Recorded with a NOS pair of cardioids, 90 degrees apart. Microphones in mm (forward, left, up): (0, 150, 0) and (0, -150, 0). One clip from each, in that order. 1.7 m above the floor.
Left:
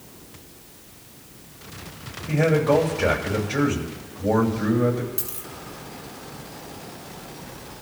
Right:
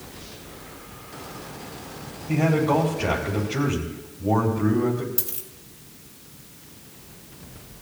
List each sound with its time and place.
2.3 s a man speaking: 60° left, 9 m
5.2 s a dropped coin: 10° right, 4.5 m